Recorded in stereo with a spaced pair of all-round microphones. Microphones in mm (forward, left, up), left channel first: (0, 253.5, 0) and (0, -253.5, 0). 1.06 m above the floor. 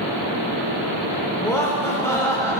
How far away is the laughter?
About 3 m.